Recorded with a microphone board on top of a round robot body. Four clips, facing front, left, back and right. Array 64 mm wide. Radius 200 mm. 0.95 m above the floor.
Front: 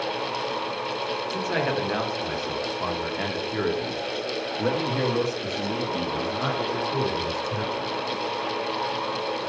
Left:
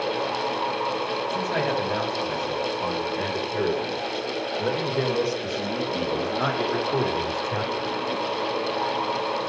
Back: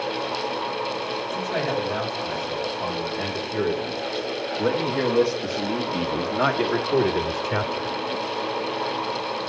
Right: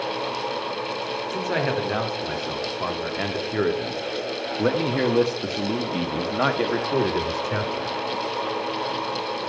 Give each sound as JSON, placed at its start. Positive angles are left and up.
{"t": 1.3, "sound": "a man speaking", "azimuth_deg": -55, "distance_m": 3.0}